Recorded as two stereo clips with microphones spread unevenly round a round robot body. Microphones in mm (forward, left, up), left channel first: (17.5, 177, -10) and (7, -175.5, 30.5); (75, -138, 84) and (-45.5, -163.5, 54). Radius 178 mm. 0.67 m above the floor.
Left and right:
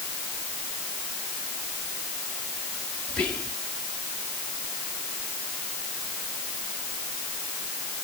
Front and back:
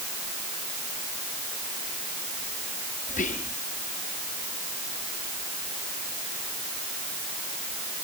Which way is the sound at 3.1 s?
5° left.